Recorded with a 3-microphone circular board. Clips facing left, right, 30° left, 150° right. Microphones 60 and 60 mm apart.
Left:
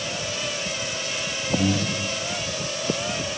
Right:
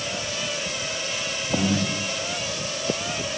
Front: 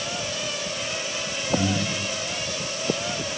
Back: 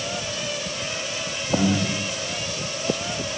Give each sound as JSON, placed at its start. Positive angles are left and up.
{"t": 1.5, "sound": "breathing", "azimuth_deg": -135, "distance_m": 7.0}